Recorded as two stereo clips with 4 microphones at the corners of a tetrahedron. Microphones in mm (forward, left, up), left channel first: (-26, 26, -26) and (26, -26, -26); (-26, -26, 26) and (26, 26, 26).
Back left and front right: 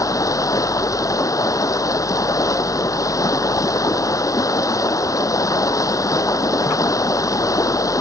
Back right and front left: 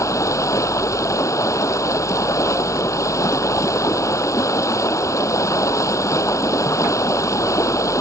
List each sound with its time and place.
0.0 s running water: straight behind